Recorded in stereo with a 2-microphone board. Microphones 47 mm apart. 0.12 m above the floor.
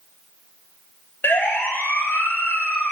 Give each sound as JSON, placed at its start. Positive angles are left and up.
{"t": 1.2, "sound": "a siren", "side_deg": 45, "distance_m": 3.0}